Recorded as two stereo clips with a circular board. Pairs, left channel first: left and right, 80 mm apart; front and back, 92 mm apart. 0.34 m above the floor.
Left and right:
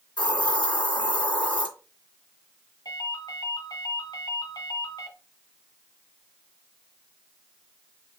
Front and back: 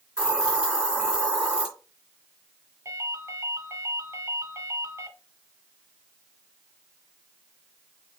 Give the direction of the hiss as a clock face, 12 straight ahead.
9 o'clock.